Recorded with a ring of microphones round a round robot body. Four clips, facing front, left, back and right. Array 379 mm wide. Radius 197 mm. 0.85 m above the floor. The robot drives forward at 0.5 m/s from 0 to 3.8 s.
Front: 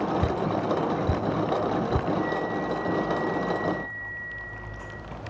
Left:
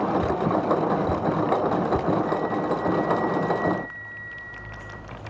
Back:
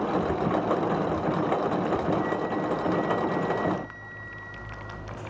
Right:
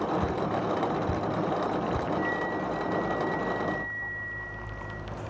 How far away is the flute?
About 1.1 m.